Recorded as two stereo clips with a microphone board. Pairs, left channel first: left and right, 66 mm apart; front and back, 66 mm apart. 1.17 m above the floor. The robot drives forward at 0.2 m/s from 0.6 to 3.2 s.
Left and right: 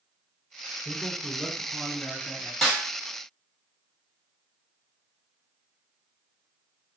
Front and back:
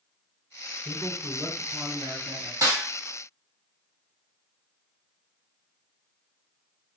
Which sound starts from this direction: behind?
A snare drum, at 2.6 s.